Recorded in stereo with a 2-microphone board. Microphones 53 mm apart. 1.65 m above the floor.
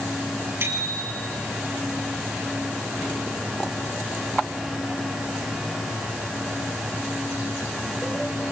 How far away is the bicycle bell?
About 9 m.